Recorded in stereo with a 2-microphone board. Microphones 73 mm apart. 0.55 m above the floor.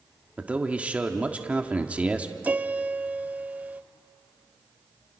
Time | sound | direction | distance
0.4 | a man speaking | 20° right (ahead or behind) | 1.4 m
2.4 | a piano | 20° right (ahead or behind) | 0.5 m